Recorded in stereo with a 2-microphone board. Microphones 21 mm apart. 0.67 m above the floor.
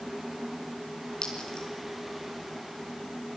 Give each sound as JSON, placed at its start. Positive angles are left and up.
{"t": 1.2, "sound": "a clink", "side_deg": 45, "distance_m": 5.0}